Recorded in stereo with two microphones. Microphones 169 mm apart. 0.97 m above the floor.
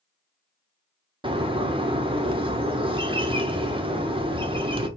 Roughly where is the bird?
Right.